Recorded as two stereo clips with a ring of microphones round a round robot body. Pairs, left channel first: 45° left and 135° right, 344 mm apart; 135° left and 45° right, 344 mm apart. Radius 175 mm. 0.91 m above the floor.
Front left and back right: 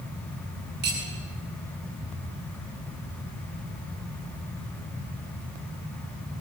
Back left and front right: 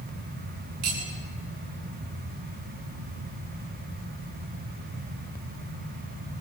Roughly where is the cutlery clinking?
Right.